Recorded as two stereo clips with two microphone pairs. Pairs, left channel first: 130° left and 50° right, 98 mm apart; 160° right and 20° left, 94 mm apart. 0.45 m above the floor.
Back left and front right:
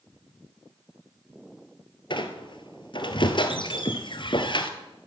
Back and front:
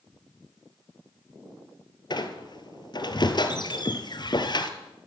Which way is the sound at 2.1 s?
160° left.